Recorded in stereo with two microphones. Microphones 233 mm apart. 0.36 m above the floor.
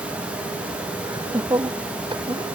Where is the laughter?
15° right (ahead or behind); by 2.5 s 20° right (ahead or behind).